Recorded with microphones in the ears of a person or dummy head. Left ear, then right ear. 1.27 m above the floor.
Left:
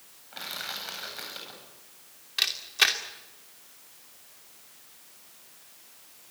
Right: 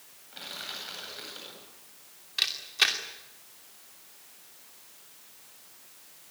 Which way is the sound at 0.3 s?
25° left (ahead or behind).